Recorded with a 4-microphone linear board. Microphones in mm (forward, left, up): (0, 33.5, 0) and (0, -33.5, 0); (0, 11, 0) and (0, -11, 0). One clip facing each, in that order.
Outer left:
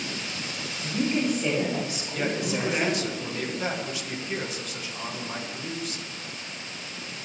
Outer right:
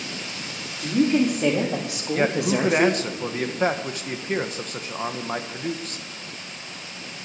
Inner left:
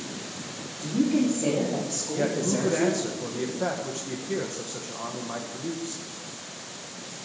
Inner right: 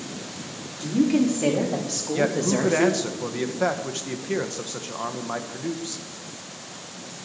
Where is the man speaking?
45° right (ahead or behind), 1.3 m.